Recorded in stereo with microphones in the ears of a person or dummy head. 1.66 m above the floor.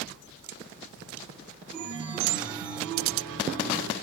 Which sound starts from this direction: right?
A chime, at 1.7 s.